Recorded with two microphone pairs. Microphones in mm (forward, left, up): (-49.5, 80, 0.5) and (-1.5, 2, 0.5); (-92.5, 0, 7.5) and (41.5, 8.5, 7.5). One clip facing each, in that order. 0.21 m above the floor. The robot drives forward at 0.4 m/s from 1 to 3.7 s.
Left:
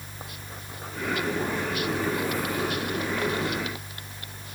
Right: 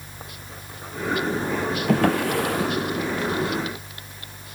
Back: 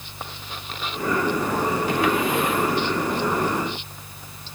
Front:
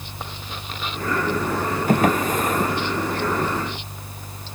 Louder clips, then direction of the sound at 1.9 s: Right 10 dB, front 6 dB; 45° right.